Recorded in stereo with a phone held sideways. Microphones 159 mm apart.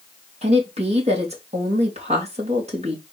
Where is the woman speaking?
40° right (ahead or behind), 2.5 m.